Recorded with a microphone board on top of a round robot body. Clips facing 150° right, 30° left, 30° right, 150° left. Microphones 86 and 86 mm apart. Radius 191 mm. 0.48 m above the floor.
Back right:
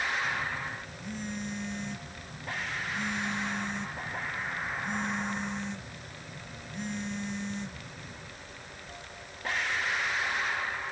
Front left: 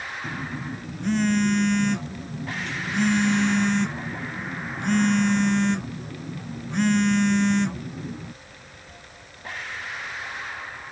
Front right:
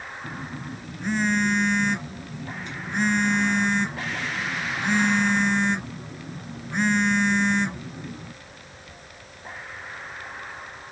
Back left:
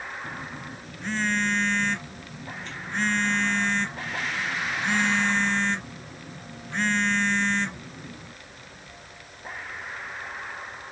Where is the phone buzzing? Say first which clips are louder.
Front left 1 dB, front right 2 dB; 45° left.